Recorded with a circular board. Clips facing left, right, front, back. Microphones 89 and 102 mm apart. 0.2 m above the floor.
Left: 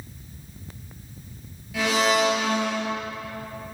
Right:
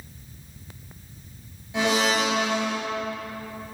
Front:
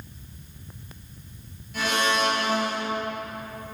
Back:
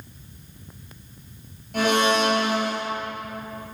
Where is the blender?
155° right, 2.5 m.